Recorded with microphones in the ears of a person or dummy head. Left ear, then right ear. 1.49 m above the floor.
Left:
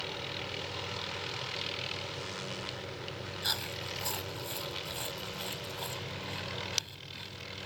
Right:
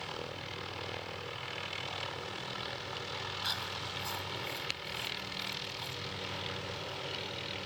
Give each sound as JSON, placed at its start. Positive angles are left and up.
{"t": 3.4, "sound": "chewing", "side_deg": 15}